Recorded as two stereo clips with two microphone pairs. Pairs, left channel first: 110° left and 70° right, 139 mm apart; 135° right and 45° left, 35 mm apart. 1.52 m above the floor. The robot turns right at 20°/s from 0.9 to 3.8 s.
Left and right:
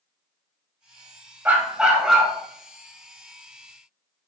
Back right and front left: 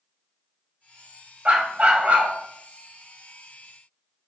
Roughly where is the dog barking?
Ahead.